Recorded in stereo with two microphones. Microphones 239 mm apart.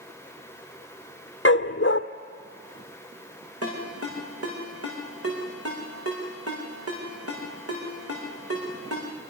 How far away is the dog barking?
About 1.2 m.